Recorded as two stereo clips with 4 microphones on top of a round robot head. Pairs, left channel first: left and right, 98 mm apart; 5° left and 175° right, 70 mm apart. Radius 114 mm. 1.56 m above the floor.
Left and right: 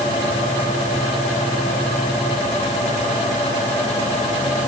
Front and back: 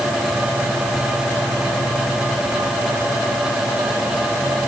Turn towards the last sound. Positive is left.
No sound to turn to.